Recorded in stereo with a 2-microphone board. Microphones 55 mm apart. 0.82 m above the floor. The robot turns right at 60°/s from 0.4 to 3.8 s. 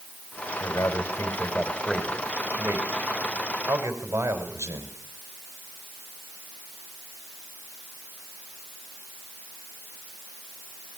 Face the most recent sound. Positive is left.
turn(degrees=-70)